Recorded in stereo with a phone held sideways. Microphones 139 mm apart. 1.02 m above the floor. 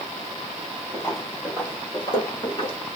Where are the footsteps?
20° left (ahead or behind), 1.9 m; by 2.8 s 40° left (ahead or behind), 1.3 m.